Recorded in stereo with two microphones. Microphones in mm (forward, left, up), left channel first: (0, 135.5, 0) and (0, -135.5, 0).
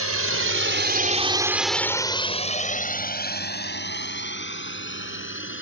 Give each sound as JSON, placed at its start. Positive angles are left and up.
{"t": 0.0, "sound": "a drone", "side_deg": -65}